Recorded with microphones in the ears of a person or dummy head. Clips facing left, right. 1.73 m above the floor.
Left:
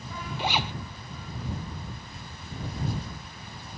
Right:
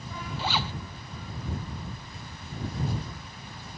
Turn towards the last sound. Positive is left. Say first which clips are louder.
# left 2 dB
turn(degrees=20)  # may be behind; listen again after turning